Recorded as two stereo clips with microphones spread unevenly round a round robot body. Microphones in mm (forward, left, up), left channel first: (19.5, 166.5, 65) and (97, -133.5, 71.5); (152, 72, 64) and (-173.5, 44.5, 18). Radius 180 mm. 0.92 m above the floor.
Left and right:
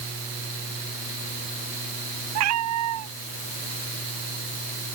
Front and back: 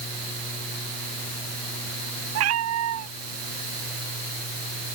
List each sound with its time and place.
2.4 s a cat meowing: 125° right